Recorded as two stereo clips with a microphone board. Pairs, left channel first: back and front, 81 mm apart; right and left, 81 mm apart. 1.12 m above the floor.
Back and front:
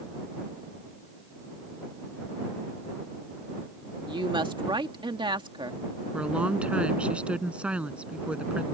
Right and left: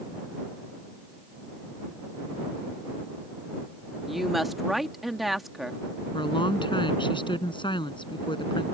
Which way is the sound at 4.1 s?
Straight ahead.